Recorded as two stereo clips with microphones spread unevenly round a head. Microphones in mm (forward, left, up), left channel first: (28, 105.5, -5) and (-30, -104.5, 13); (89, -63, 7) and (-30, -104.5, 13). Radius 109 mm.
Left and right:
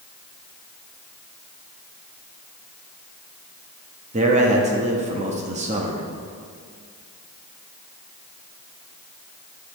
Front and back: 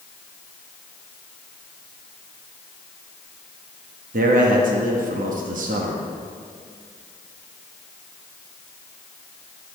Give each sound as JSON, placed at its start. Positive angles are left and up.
{"t": 4.1, "sound": "a man speaking", "azimuth_deg": -165, "distance_m": 1.0}